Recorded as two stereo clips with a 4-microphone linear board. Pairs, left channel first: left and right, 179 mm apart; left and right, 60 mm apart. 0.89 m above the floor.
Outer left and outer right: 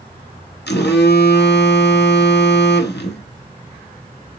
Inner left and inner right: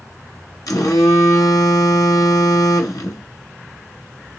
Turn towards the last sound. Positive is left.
turn(degrees=75)  # may be behind; listen again after turning